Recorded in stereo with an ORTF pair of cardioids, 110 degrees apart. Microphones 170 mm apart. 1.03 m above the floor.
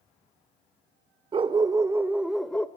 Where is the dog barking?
35° right, 1.4 m; by 2.7 s 5° left, 1.5 m.